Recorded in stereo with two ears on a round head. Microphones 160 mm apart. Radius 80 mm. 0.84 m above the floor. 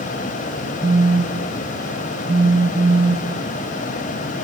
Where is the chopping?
No chopping in this recording.